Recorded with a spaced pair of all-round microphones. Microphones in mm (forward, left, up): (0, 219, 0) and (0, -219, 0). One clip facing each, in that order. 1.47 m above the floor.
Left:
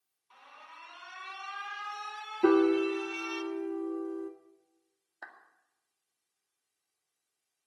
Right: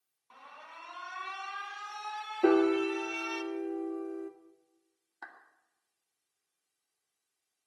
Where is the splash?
No splash in this recording.